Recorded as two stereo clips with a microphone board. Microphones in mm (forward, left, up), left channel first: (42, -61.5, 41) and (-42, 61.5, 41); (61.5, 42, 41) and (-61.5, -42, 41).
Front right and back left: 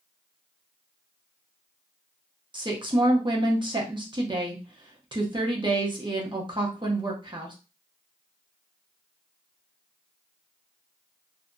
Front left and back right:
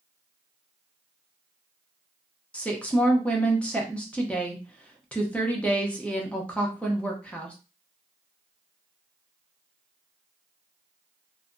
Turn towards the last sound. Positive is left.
turn(degrees=110)